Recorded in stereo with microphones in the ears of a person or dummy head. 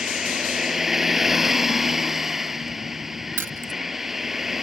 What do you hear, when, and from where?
0.0 s a vehicle: 5° right (ahead or behind)
3.4 s keys jangling: 15° right (ahead or behind)